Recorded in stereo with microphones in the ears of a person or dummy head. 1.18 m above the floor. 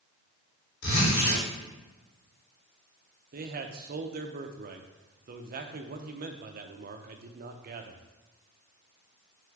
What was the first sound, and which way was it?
A zipper, 75° left (ahead or behind).